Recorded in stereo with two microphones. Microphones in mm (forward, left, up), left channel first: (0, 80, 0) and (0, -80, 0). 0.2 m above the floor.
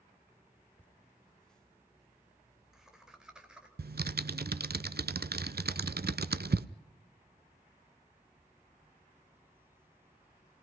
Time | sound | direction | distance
0.8 | laughter | 10° left (ahead or behind) | 1.3 m
3.8 | typing on a keyboard | 80° right | 0.5 m